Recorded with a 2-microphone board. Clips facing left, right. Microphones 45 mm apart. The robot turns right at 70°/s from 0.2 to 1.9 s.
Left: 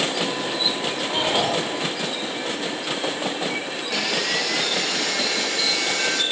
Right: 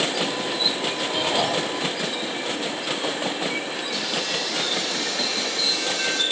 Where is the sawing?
85° left, 1.4 m.